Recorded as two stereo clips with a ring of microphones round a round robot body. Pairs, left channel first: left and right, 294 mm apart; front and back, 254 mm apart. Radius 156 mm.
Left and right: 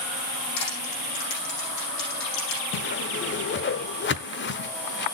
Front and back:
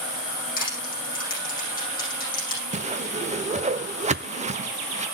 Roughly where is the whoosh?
Behind left.